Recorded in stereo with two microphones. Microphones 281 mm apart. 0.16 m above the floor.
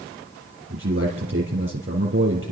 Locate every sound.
0.7 s a man speaking: 50° right (ahead or behind), 3.5 m